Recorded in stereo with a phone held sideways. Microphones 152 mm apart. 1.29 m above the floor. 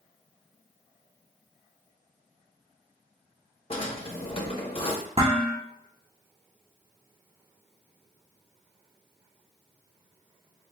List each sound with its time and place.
3.7 s a drawer: 40° left (ahead or behind), 0.7 m
5.2 s dishes clattering: 45° right (ahead or behind), 0.9 m